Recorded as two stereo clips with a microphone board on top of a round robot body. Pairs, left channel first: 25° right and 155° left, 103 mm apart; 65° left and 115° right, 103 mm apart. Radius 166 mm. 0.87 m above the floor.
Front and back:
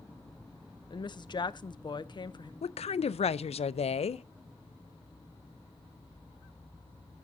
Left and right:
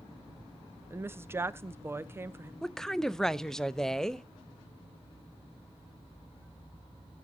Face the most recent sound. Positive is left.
turn(degrees=-15)